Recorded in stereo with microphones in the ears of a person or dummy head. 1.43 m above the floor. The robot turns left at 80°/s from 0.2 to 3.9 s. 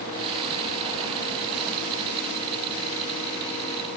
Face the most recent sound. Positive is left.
No sound to turn to.